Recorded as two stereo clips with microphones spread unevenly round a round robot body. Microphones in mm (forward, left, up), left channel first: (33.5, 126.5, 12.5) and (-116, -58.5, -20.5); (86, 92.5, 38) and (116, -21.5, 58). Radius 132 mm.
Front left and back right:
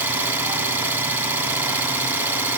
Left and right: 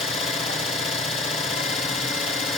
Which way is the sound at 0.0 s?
150° left.